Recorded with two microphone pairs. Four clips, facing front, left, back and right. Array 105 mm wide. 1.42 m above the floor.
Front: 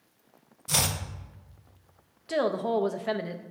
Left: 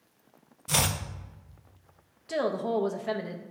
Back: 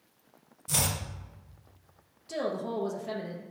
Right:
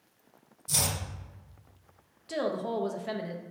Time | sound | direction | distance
0.7 | chopping | 60° left | 0.6 m
2.3 | a woman speaking | 20° left | 0.5 m